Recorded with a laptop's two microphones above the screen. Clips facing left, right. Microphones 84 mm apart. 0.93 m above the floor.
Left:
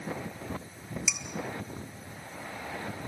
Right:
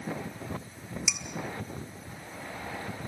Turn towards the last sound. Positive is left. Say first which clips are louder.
# even
turn(degrees=-10)  # may be behind; listen again after turning